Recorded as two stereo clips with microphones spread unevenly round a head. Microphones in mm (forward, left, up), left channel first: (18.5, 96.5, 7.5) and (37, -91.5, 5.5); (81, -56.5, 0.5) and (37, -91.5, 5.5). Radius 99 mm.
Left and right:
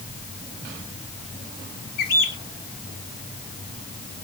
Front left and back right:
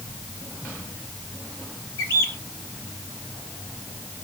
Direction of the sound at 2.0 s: 60° left.